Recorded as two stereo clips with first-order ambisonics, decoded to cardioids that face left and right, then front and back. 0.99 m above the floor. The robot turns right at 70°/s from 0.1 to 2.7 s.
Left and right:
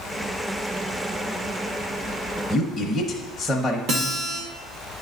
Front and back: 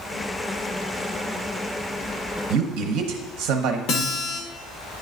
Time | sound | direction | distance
2.5 | a man speaking | 170° left | 0.7 m
3.9 | a guitar | 40° right | 1.5 m